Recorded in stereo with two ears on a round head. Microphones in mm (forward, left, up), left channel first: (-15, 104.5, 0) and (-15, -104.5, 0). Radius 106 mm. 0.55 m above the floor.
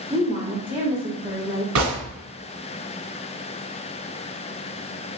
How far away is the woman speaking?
About 1.2 m.